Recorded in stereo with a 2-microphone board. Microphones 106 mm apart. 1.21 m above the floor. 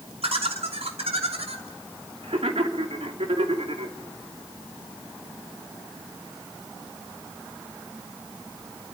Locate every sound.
0.2 s laughter: 75° right (ahead or behind), 2.5 m